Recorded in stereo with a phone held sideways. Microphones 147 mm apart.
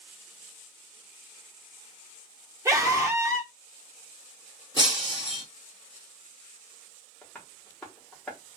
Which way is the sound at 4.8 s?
35° left (ahead or behind).